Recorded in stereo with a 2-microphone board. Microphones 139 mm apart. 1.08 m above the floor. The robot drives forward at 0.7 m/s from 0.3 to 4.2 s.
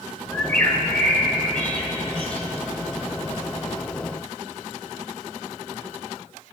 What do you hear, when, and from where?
0.3 s a bird: 15° left (ahead or behind), 2.5 m; by 2.4 s 10° left (ahead or behind), 4 m